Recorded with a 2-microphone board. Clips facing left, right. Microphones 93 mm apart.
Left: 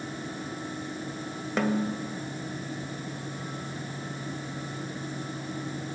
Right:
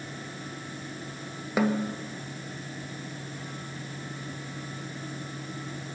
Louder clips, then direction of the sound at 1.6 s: Right 1 dB; 5° right (ahead or behind).